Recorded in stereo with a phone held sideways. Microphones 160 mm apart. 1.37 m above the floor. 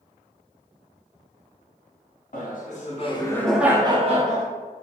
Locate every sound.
2.3 s laughter: 60° left (ahead or behind), 0.9 m; by 4.5 s 55° right (ahead or behind), 0.8 m